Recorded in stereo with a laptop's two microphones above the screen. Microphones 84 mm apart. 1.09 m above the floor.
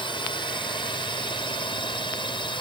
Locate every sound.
0.0 s a drone: 75° left (ahead or behind)